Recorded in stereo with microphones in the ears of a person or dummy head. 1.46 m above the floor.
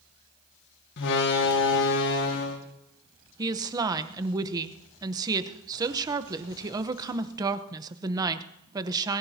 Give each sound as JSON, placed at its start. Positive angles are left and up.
{"t": 1.0, "sound": "a door slam", "side_deg": 65, "distance_m": 1.7}
{"t": 3.4, "sound": "a woman speaking", "side_deg": -20, "distance_m": 0.8}